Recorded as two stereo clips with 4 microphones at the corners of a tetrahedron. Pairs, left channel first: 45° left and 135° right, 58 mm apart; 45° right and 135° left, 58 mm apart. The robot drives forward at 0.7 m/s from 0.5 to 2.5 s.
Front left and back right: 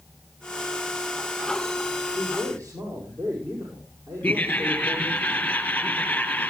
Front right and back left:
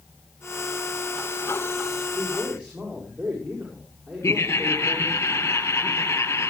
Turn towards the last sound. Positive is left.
turn(degrees=-20)